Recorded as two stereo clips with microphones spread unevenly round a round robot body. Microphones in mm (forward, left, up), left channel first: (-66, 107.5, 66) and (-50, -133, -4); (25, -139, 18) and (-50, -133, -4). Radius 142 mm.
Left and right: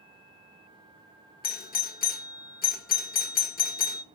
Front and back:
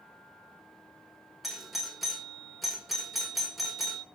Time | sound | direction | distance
1.4 | a doorbell | 130° left | 1.2 m